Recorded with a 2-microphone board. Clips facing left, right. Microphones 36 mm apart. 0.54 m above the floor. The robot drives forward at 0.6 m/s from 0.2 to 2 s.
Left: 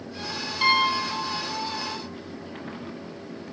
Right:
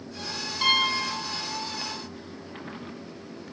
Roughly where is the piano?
Centre.